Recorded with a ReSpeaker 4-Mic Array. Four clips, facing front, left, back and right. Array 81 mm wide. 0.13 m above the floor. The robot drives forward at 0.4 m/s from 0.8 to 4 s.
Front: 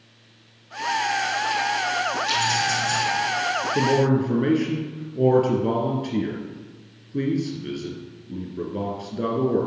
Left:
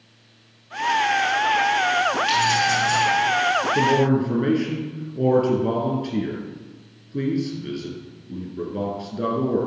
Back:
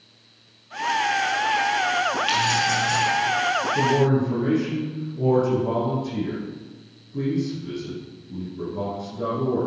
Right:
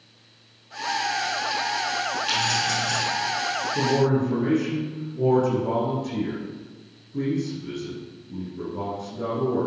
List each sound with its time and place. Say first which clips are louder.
2.3 s keys jangling: left 6 dB, back 1 dB; 175° left, 2.5 m
3.8 s a man speaking: even, front 1 dB; 35° left, 3 m